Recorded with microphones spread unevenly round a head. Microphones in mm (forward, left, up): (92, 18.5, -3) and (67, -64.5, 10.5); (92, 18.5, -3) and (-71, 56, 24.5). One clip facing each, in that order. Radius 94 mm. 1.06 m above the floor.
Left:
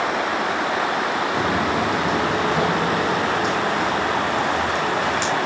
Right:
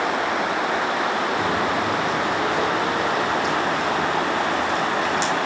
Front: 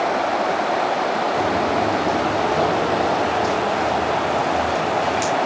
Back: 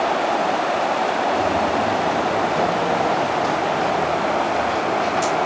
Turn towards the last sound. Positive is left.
turn(degrees=40)